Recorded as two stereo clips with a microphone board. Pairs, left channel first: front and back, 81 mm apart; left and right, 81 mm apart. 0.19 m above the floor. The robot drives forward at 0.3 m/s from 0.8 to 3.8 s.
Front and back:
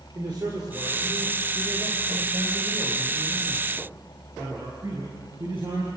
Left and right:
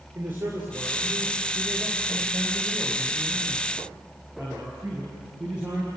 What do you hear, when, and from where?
0.1 s a man speaking: 155° right, 4 m; by 5.9 s 160° right, 4.5 m